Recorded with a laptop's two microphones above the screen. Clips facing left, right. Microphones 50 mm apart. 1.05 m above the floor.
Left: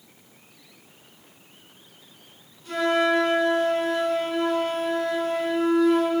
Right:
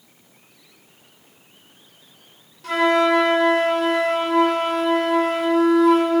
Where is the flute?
80° right, 3 m.